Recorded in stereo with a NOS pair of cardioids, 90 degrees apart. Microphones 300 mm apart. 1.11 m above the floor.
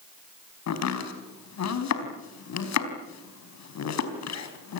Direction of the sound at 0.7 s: 60° left.